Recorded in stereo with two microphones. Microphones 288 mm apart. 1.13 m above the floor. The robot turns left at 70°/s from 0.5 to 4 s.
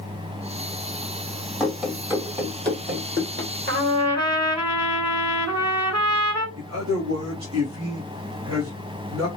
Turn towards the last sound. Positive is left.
turn(degrees=-60)  # may be behind; listen again after turning